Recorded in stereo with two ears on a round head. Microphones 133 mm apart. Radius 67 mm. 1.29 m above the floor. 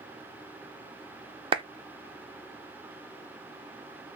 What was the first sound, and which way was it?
A clap, 35° right (ahead or behind).